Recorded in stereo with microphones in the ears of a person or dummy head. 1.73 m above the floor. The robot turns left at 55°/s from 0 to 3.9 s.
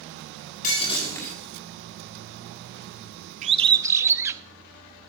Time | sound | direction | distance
0.6 | breaking glass | 45° left | 7 m
3.4 | a bird | 40° right (ahead or behind) | 0.6 m